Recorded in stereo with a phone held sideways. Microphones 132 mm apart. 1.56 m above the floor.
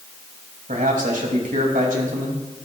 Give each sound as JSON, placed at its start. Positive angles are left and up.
{"t": 0.7, "sound": "a man speaking", "side_deg": -85, "distance_m": 2.0}